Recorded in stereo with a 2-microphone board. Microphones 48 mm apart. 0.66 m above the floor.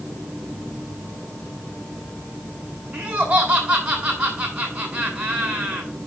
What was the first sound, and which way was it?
Laughter, 30° right (ahead or behind).